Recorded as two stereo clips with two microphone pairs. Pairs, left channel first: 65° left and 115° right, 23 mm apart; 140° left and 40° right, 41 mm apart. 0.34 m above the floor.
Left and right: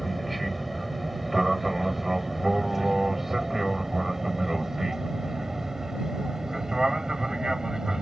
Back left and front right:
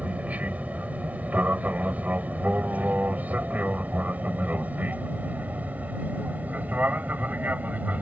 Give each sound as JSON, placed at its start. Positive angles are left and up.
{"t": 0.0, "sound": "an aircraft", "azimuth_deg": -25}